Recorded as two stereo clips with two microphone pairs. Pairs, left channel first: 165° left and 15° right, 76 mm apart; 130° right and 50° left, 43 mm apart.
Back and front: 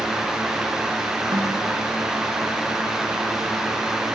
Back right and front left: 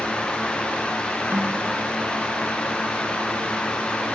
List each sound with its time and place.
1.3 s a snare drum: 5° left, 4.5 m